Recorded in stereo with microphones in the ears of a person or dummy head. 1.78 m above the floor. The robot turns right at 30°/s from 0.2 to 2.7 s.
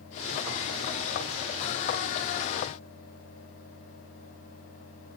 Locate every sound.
Only background noise.